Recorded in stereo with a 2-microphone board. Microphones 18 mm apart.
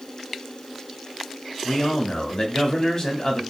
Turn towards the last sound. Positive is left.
turn(degrees=35)  # may be behind; listen again after turning